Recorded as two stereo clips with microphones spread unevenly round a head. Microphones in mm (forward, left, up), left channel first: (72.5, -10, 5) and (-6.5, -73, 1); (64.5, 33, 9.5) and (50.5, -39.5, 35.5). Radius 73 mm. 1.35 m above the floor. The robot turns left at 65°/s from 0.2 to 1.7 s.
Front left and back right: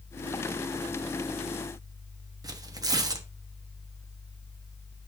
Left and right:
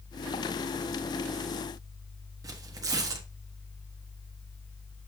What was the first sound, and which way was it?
Tearing paper, 90° right.